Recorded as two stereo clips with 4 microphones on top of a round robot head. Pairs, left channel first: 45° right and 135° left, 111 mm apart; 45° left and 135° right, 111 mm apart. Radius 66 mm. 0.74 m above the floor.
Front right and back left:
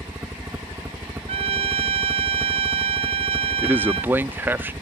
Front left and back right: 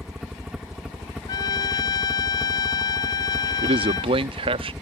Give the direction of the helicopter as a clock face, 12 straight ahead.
7 o'clock.